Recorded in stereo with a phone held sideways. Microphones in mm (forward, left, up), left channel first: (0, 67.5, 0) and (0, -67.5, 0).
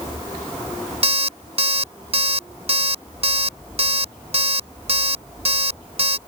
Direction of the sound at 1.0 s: 50° right (ahead or behind).